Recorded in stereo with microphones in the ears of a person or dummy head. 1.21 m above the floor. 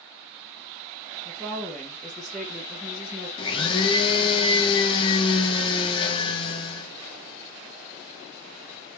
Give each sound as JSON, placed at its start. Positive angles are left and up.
{"t": 1.2, "sound": "a woman speaking", "side_deg": -5, "distance_m": 1.0}
{"t": 3.4, "sound": "a blender", "side_deg": 25, "distance_m": 0.7}